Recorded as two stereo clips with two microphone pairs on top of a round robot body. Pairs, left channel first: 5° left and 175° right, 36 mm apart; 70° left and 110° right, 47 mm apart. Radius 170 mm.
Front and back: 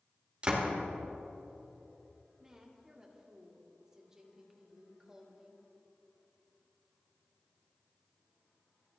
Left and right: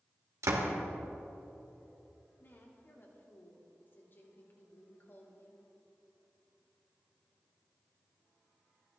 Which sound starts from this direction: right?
A door slam, at 0.4 s.